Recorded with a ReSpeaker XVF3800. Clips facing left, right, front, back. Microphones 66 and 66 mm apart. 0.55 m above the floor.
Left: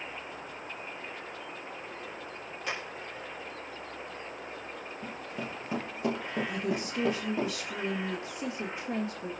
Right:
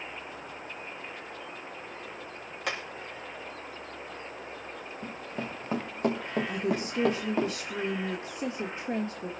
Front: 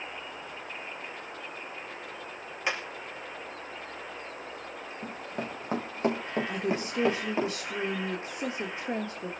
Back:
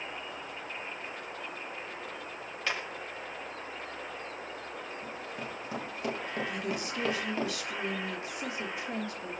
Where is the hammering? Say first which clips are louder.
Right 2 dB, front 2 dB; 75° right, 5 m.